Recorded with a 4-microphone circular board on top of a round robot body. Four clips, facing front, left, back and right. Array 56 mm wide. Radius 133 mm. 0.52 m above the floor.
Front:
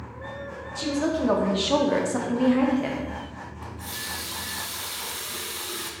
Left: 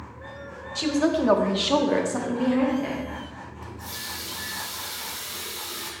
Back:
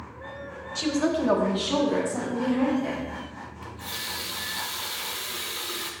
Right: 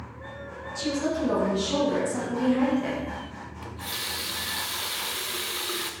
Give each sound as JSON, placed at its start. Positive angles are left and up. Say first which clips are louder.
{"t": 0.8, "sound": "a woman speaking", "louder": "left 5 dB, back 1 dB", "azimuth_deg": 115, "distance_m": 1.3}
{"t": 3.6, "sound": "a running tap", "louder": "right 4 dB, back 1 dB", "azimuth_deg": -105, "distance_m": 0.8}